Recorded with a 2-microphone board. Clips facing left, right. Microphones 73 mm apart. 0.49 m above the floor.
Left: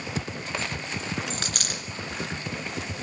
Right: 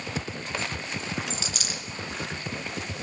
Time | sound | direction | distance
1.3 | a dropped coin | 55° left (ahead or behind) | 2 m